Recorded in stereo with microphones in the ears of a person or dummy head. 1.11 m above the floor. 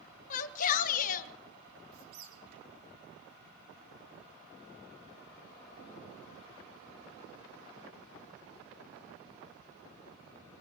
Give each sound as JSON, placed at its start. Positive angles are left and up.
{"t": 0.3, "sound": "a shout", "side_deg": 45, "distance_m": 1.2}
{"t": 1.9, "sound": "a squeak", "side_deg": -80, "distance_m": 4.5}